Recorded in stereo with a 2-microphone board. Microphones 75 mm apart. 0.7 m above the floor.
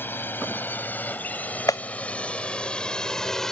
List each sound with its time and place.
0.0 s a drone: 30° left (ahead or behind); by 3.5 s 5° left (ahead or behind)
1.7 s a clap: 55° left (ahead or behind)